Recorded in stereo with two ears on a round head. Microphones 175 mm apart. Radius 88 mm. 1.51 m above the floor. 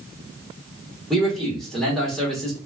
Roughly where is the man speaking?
Centre.